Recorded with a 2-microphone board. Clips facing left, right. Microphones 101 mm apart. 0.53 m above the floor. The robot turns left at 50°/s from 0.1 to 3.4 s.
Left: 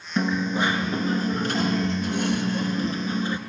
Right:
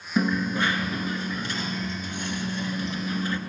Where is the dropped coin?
Straight behind, 0.7 m; by 3.4 s 20° left, 0.7 m.